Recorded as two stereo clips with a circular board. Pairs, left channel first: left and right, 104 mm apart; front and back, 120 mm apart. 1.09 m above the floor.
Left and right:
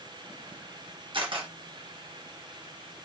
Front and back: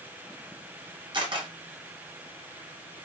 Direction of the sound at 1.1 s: 130° right.